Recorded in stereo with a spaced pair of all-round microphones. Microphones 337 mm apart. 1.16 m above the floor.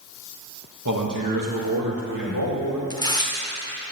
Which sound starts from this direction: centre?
Tearing paper, at 2.9 s.